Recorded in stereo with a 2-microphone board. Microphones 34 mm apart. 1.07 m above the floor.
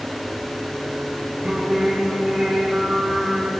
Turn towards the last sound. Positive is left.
turn(degrees=-30)  # may be behind; listen again after turning